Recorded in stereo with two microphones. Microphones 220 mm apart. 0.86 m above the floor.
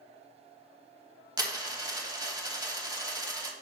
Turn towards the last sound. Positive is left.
turn(degrees=-20)  # may be behind; listen again after turning